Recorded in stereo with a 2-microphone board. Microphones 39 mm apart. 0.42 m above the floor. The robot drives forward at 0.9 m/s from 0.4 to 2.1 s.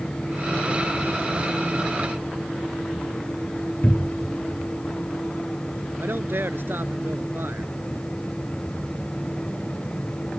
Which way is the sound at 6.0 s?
65° right (ahead or behind).